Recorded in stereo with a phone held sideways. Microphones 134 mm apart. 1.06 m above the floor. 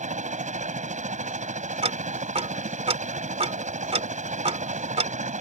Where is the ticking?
50° right (ahead or behind).